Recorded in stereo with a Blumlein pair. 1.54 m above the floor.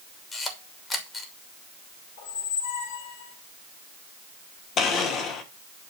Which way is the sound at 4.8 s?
30° left.